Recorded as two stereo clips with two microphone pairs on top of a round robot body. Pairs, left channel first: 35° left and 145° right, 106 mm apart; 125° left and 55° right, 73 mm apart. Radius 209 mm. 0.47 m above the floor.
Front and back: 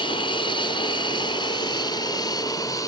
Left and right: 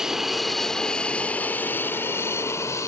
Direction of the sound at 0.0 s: 30° left.